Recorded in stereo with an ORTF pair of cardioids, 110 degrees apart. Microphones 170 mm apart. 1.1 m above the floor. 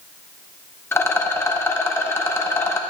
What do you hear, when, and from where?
0.9 s a rattle: 15° left, 0.9 m